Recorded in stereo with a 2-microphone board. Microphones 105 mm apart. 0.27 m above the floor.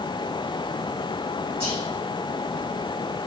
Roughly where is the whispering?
Right.